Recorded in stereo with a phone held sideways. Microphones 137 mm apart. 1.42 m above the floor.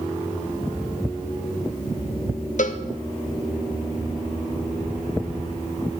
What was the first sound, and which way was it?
A cowbell, 65° left (ahead or behind).